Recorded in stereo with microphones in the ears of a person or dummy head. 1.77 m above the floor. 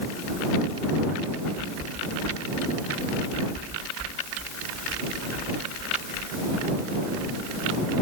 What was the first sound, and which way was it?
Only background noise.